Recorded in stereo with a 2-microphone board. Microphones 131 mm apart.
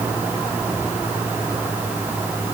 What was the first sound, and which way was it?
Only background noise.